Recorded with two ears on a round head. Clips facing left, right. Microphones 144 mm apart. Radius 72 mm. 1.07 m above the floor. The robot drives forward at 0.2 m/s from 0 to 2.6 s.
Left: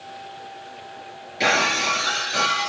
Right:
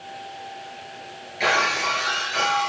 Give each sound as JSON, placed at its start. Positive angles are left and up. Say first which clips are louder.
{"t": 1.4, "sound": "breaking glass", "louder": "left 1 dB", "side_deg": 50, "distance_m": 4.0}